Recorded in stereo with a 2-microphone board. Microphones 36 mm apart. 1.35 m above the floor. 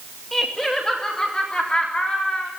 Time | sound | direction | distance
0.3 | laughter | 10° left (ahead or behind) | 2 m